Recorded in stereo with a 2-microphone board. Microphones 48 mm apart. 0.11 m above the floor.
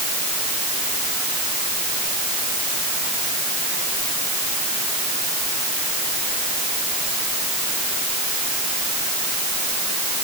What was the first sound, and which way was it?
Only background noise.